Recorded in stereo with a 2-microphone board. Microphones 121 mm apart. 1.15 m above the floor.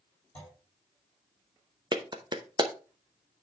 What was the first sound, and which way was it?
A clunk, 10° left (ahead or behind).